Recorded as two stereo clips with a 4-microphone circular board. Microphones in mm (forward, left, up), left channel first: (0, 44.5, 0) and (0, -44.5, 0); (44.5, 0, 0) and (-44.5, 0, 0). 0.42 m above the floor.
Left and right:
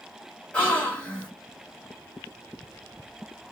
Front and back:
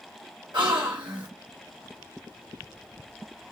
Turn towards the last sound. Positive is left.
turn(degrees=165)